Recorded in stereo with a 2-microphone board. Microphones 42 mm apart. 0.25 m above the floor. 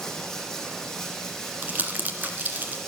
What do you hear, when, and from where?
0.0 s running water: 5° left (ahead or behind), 5.5 m
1.6 s crumpling: 45° right (ahead or behind), 1.8 m